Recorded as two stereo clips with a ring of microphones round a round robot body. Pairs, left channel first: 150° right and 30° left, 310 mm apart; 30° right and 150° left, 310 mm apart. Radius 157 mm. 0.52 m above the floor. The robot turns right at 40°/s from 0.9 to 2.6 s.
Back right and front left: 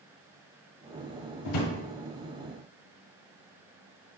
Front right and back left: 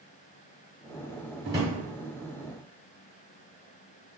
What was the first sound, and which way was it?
A drawer, 135° right.